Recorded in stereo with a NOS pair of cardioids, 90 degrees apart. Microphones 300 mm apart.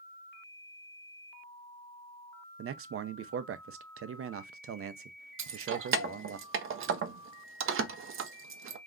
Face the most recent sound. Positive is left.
turn(degrees=-45)